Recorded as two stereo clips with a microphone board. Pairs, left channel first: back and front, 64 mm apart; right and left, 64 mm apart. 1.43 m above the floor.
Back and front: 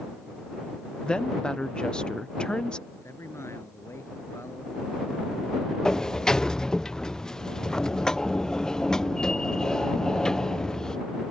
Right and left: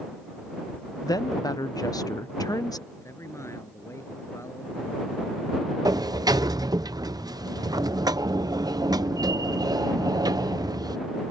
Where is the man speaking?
135° right.